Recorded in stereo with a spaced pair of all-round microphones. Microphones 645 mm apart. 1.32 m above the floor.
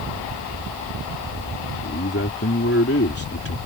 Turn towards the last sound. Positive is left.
turn(degrees=20)  # may be behind; listen again after turning